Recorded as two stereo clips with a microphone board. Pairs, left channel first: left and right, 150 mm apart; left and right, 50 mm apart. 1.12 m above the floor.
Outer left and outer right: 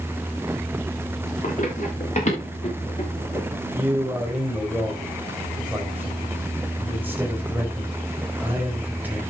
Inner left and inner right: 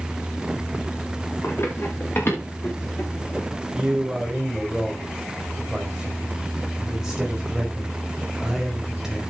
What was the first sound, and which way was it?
Running footsteps, 55° left (ahead or behind).